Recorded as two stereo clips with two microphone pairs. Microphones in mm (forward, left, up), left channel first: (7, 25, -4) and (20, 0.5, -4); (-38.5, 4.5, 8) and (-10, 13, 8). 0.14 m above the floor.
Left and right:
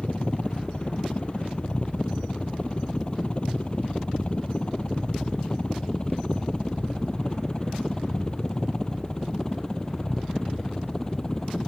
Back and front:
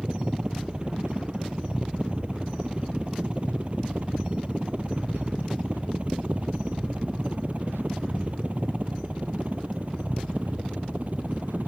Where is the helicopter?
70° left; by 11.7 s 50° left.